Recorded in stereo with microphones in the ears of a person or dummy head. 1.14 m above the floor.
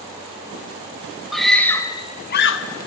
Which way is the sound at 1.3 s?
Centre (ahead or behind).